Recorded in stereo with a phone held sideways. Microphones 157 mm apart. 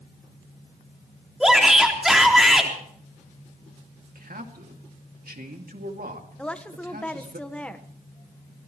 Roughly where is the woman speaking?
Centre.